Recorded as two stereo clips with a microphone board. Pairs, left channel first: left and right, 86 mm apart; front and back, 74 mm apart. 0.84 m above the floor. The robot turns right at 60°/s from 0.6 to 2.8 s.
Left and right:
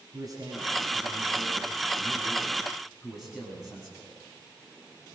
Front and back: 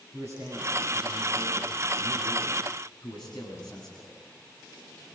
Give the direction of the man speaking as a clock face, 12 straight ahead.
4 o'clock.